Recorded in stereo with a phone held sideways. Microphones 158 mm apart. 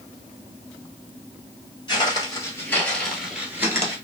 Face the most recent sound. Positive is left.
turn(degrees=-20)  # may be behind; listen again after turning